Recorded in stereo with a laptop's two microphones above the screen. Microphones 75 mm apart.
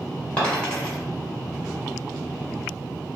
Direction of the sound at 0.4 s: 20° left (ahead or behind).